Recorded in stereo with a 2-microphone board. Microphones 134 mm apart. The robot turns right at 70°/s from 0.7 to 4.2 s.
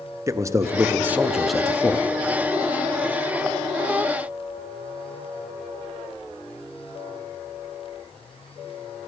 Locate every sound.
0.3 s a man speaking: 20° right (ahead or behind), 0.6 m; by 2.0 s 15° left (ahead or behind), 0.6 m